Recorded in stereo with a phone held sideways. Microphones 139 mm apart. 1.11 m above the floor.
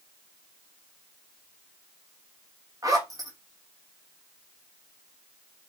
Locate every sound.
2.8 s a zipper: 25° right (ahead or behind), 1.4 m